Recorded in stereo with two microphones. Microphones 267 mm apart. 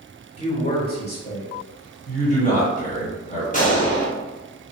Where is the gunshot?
30° left (ahead or behind), 1.1 m.